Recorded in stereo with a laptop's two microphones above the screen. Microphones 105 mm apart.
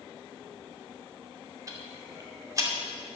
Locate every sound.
1.7 s ticking: 30° right (ahead or behind), 2 m